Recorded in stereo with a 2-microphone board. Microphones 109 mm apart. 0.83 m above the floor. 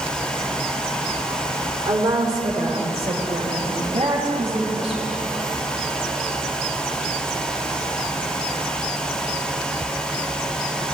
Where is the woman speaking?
60° right (ahead or behind), 2.5 m; by 5.1 s 50° right (ahead or behind), 5.5 m.